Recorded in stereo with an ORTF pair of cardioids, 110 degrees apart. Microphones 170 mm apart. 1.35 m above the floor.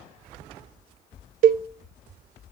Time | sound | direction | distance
1.4 | a cowbell | 55° right | 0.7 m